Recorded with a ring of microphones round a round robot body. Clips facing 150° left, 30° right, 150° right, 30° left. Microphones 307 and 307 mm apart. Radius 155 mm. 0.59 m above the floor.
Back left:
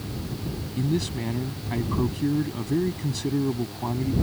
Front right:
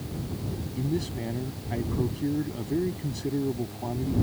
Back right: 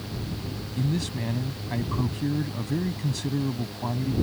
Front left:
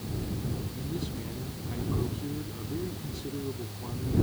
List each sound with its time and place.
0.8 s a man speaking: 140° right